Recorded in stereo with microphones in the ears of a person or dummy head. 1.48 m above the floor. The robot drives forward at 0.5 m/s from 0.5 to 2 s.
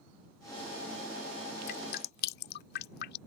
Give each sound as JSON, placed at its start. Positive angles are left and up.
{"t": 1.7, "sound": "dripping", "side_deg": 55}